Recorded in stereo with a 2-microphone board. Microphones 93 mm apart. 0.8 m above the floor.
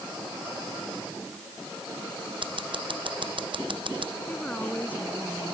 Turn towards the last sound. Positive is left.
turn(degrees=15)  # may be behind; listen again after turning